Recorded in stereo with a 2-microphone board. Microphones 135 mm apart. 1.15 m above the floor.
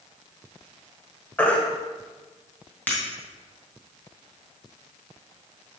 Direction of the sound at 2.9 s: 15° left (ahead or behind).